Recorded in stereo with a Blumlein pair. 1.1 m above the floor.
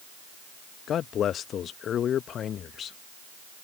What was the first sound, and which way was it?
A man speaking, 30° left.